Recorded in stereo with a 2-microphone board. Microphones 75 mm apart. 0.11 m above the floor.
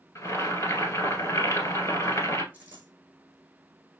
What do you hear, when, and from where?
0.1 s boiling: 35° left (ahead or behind), 1.6 m
2.5 s a dropped coin: 20° right (ahead or behind), 3 m